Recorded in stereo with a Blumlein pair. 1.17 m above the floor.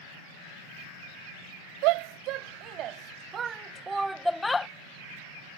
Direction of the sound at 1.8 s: 45° right.